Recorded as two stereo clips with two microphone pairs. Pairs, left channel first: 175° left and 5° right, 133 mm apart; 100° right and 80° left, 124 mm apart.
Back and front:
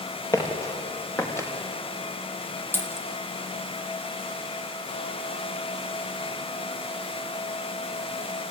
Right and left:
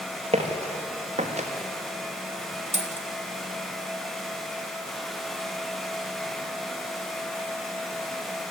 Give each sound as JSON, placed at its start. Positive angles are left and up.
{"t": 0.3, "sound": "footsteps", "azimuth_deg": 115, "distance_m": 4.5}
{"t": 2.7, "sound": "a dropped coin", "azimuth_deg": 100, "distance_m": 1.7}